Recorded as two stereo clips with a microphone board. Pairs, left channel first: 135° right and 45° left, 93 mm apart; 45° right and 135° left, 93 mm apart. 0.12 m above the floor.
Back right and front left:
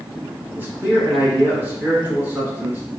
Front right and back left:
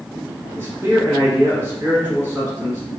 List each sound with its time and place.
0.6 s a man speaking: 90° left, 1.4 m